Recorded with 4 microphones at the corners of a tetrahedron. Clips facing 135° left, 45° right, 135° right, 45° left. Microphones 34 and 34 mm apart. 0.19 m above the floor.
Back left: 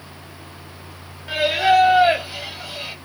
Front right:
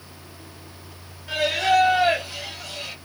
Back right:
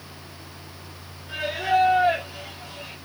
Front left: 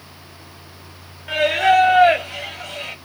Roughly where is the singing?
Ahead left.